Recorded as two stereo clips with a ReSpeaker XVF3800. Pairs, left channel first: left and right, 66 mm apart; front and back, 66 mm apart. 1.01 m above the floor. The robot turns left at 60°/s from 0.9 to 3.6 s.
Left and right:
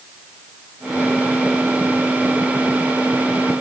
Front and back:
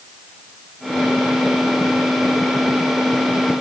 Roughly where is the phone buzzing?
I don't hear a phone buzzing.